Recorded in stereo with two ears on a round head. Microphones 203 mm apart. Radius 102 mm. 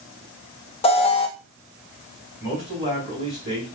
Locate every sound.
0.8 s an alarm: 25° left (ahead or behind), 0.6 m
2.4 s a man speaking: 20° left (ahead or behind), 3.5 m